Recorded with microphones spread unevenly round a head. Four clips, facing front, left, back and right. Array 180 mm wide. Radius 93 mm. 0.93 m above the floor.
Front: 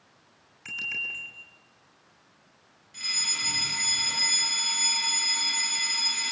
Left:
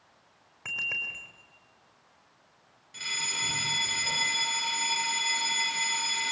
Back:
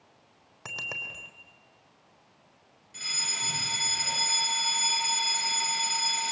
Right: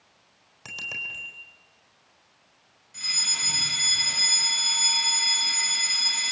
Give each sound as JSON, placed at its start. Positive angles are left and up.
{"t": 0.7, "sound": "a bicycle bell", "azimuth_deg": 175, "distance_m": 3.5}
{"t": 2.9, "sound": "a fire alarm", "azimuth_deg": 115, "distance_m": 6.5}